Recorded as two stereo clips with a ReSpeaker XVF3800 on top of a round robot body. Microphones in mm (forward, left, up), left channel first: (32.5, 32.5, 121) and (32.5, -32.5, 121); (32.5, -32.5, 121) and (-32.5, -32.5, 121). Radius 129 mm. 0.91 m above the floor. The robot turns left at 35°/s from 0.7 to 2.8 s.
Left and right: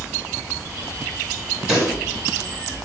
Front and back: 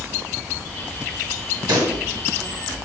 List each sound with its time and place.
1.7 s a pop: 170° right, 2 m; by 2.0 s straight behind, 2 m